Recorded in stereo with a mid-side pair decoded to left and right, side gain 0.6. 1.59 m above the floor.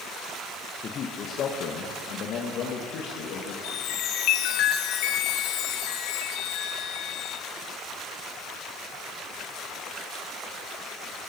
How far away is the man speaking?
About 1.6 m.